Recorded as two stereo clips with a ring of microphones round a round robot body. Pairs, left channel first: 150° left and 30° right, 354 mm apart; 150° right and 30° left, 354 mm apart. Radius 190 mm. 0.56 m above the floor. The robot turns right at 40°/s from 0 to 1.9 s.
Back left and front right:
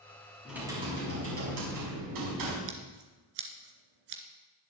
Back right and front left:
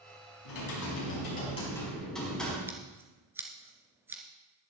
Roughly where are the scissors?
Ahead right.